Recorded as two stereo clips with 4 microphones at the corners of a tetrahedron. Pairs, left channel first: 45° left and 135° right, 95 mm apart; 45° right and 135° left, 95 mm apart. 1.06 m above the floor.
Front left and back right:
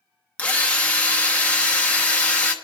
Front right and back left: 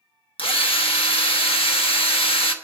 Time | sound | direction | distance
0.4 | a drill | 30° right | 1.1 m